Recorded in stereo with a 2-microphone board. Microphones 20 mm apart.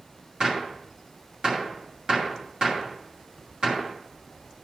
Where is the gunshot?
40° right (ahead or behind), 2 m.